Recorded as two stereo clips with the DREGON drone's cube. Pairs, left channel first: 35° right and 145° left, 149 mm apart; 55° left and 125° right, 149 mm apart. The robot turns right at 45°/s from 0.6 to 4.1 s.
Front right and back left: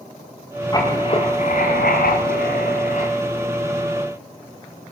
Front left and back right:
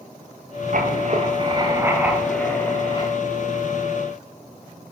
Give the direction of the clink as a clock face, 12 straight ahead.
No clink in this recording.